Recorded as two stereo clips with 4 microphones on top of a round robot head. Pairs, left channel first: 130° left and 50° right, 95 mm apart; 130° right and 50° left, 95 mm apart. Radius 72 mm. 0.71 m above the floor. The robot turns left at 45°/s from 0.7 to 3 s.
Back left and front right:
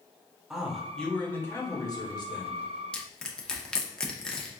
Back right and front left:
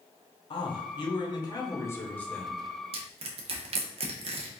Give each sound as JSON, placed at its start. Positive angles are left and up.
{"t": 0.5, "sound": "a man speaking", "azimuth_deg": -135, "distance_m": 1.0}
{"t": 2.9, "sound": "crushing", "azimuth_deg": 50, "distance_m": 0.7}